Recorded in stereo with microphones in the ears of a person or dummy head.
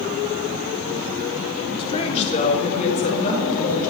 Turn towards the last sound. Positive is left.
turn(degrees=50)  # may be behind; listen again after turning